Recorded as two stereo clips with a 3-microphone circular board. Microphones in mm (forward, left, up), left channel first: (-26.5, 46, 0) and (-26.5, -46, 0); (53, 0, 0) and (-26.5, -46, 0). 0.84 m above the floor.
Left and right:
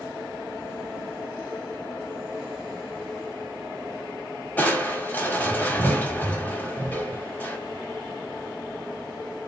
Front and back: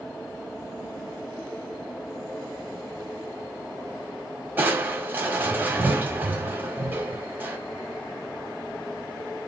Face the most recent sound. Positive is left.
turn(degrees=155)